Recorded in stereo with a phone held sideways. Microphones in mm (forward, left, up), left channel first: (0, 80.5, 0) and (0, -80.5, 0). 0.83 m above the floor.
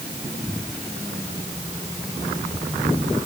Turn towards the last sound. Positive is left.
No sound to turn to.